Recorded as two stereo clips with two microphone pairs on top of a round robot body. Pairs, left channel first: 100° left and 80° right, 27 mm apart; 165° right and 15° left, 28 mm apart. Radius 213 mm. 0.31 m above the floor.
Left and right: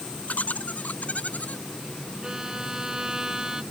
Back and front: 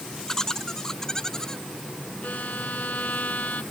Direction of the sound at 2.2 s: 145° right.